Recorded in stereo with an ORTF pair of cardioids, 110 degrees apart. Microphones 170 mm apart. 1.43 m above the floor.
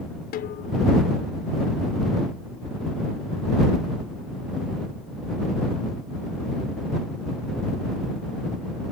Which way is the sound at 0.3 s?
65° left.